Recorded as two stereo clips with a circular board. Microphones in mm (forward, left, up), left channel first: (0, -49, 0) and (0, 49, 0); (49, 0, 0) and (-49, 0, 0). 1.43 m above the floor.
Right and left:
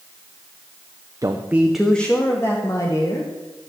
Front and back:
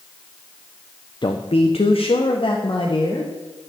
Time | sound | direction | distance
1.2 | a man speaking | 35° left | 0.8 m